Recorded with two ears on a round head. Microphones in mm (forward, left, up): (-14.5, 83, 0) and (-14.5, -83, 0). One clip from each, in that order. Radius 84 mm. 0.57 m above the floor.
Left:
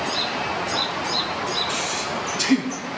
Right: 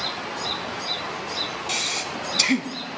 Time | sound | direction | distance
1.7 | breathing | 80° right | 1.3 m